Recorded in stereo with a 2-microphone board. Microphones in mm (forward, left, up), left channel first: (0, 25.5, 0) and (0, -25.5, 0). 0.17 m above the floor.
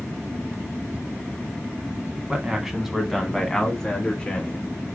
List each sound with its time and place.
2.3 s a man speaking: 15° right (ahead or behind), 1.2 m; by 4.7 s 25° left (ahead or behind), 1.6 m